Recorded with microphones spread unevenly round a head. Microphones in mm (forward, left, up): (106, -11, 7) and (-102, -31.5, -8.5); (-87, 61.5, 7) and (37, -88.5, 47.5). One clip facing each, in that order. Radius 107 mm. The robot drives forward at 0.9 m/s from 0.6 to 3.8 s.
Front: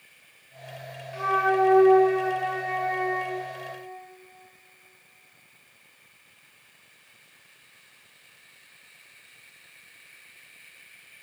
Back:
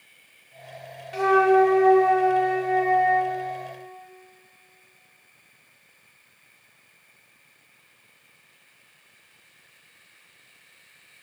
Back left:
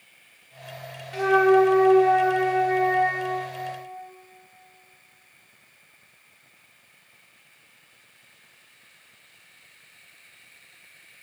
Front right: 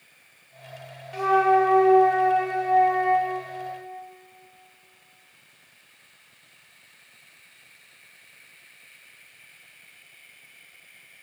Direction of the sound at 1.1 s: 155° right.